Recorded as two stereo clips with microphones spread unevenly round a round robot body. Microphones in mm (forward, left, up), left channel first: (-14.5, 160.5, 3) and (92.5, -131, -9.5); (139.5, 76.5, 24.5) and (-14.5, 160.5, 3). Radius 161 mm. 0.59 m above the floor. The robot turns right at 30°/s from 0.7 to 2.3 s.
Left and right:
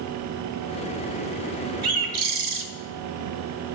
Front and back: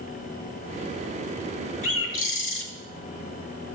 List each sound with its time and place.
1.8 s a bird: 50° right, 1.4 m; by 2.6 s 35° right, 1.4 m